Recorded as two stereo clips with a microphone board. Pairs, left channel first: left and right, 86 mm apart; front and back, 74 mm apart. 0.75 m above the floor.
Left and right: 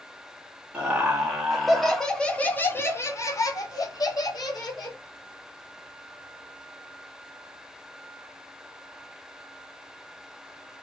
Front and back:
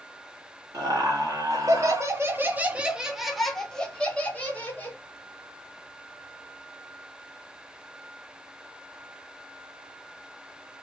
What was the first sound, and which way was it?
Laughter, 165° right.